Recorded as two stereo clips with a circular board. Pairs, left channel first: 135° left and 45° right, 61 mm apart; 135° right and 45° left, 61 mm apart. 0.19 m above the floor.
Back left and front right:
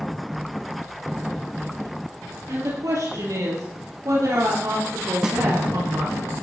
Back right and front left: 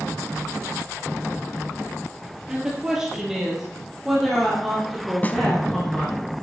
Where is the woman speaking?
30° right, 3.5 m; by 6.2 s 50° right, 6 m.